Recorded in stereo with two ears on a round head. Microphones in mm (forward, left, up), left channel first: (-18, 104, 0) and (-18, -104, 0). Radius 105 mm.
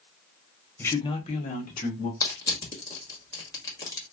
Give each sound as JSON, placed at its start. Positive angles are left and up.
{"t": 0.8, "sound": "a man speaking", "side_deg": 10, "distance_m": 0.7}
{"t": 2.2, "sound": "crushing", "side_deg": 15, "distance_m": 1.5}